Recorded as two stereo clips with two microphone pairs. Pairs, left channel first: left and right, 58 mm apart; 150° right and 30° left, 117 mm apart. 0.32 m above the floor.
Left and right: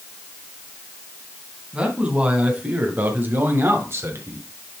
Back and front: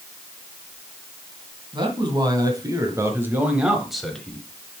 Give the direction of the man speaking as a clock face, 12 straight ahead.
1 o'clock.